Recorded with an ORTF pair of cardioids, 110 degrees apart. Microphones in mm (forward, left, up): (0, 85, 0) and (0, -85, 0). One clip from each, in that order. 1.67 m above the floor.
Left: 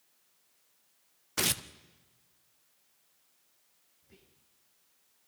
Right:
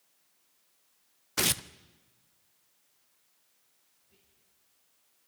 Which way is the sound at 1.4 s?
10° right.